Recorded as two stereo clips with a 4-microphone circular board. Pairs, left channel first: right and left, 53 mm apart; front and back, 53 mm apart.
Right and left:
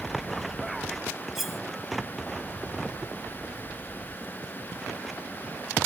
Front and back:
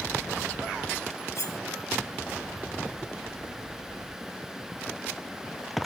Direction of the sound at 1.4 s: 5° left.